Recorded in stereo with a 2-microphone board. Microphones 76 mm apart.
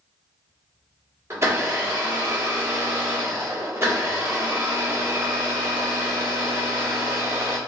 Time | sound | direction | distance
1.3 | a blender | 35° right (ahead or behind) | 1.4 m